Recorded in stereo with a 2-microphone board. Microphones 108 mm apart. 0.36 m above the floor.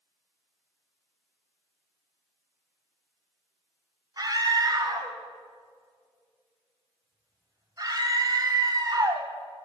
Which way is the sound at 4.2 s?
40° right (ahead or behind).